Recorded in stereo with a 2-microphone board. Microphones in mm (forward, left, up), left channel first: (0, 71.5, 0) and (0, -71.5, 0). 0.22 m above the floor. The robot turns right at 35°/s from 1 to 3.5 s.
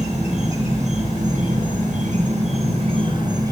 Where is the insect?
115° right, 3 m; by 3.5 s 25° right, 3 m.